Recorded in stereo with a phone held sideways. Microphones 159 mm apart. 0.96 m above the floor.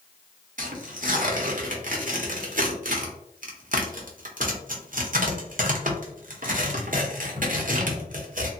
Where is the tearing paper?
65° right (ahead or behind), 0.8 m.